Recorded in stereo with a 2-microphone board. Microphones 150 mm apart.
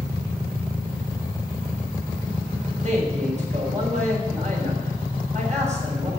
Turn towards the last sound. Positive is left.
turn(degrees=-50)  # may be behind; listen again after turning